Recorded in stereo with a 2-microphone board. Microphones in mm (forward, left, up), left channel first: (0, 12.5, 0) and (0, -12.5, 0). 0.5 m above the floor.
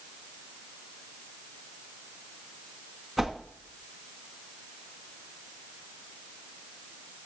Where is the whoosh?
Centre (ahead or behind), 2 m.